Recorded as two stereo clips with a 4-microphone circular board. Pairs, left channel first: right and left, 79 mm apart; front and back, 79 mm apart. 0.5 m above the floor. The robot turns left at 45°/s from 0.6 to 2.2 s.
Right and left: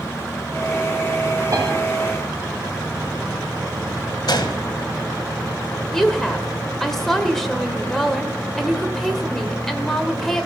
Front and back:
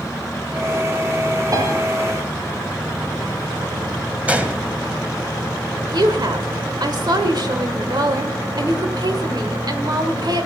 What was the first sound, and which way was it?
A piano, 140° left.